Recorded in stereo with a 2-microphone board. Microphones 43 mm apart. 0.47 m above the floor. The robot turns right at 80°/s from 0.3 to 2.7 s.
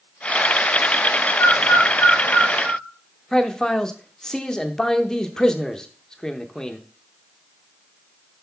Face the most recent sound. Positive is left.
turn(degrees=15)  # may be behind; listen again after turning